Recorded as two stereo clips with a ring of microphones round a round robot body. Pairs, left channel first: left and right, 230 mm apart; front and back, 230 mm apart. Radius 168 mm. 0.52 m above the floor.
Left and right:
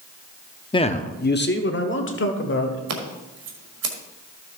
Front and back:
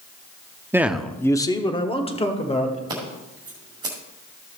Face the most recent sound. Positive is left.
turn(degrees=-105)